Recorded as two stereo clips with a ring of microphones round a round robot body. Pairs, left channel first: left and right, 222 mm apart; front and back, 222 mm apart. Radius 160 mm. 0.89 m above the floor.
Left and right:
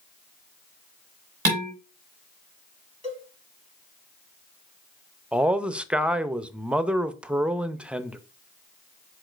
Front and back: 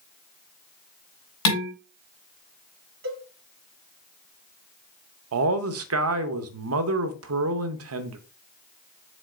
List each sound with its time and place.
1.4 s dishes clattering: 30° right, 1.9 m
3.0 s a cowbell: 150° left, 1.7 m
5.3 s a man speaking: 175° right, 0.6 m